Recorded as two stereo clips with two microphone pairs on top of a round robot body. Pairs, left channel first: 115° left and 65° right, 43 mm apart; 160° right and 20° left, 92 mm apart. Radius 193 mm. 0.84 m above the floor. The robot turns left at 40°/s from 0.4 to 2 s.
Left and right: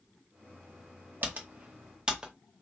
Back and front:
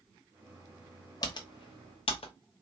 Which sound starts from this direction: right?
Typing on a keyboard, at 1.2 s.